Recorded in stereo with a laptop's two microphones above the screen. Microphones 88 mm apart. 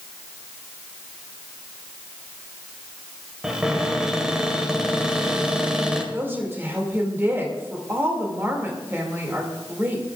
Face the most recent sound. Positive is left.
turn(degrees=-30)  # may be behind; listen again after turning